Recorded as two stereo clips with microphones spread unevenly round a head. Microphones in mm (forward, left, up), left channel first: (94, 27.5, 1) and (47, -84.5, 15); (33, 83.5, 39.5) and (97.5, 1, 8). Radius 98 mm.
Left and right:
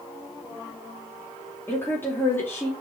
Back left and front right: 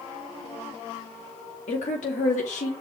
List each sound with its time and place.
1.7 s a woman speaking: 145° left, 2 m